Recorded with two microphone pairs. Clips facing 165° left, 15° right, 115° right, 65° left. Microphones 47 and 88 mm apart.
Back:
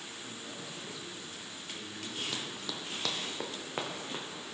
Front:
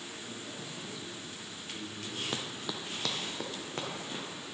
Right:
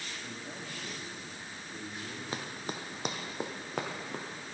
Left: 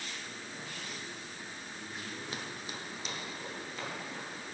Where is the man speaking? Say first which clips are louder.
Front 1 dB, right 2 dB; 115° right, 1.7 m; by 2.2 s 80° right, 3 m.